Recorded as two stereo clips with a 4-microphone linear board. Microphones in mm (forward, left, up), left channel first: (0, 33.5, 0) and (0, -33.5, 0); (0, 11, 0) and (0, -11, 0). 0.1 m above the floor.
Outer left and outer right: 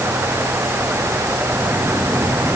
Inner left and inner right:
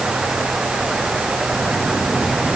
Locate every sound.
Only background noise.